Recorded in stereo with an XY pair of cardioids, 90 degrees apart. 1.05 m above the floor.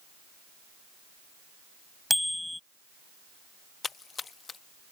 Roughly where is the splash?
Ahead left.